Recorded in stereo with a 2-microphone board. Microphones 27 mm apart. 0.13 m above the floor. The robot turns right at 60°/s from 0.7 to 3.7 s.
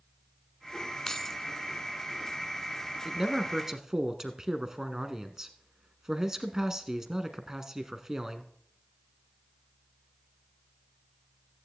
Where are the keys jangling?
15° left (ahead or behind), 0.9 m.